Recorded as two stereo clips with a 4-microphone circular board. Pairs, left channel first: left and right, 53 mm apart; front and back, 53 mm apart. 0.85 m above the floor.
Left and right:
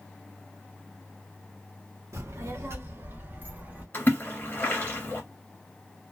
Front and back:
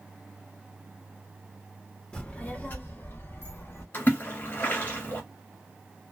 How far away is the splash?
About 1.5 m.